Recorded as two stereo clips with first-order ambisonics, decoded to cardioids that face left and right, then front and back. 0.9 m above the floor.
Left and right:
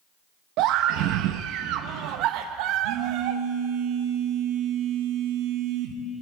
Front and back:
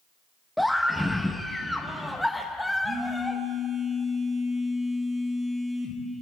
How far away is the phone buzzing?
About 2 m.